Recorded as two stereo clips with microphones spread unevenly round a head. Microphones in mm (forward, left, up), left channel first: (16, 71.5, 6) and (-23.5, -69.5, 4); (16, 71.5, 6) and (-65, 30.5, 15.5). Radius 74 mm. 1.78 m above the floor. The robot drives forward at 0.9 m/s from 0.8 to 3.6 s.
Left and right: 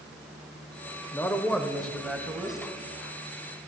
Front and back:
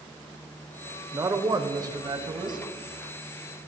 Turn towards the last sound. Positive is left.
turn(degrees=170)